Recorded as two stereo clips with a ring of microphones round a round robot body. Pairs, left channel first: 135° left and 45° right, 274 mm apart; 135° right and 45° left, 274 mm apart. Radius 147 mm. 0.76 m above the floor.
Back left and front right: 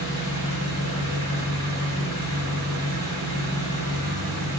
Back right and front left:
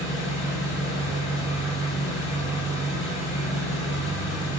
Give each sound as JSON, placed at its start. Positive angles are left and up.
{"t": 0.0, "sound": "an engine running", "azimuth_deg": -35, "distance_m": 0.9}